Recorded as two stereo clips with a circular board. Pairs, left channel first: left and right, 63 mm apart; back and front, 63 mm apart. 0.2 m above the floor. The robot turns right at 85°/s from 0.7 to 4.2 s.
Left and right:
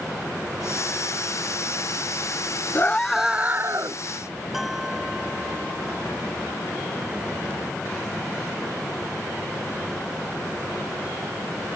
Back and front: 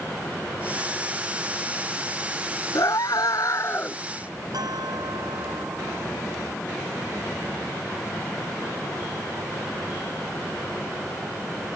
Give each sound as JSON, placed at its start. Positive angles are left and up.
{"t": 2.8, "sound": "a scream", "azimuth_deg": 145}
{"t": 4.5, "sound": "a bell", "azimuth_deg": -5}